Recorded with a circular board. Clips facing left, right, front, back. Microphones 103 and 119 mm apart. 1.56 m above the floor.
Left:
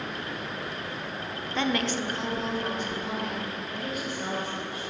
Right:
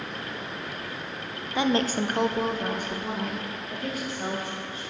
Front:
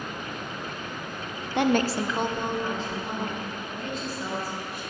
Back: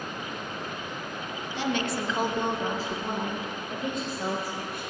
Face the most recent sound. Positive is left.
turn(degrees=-145)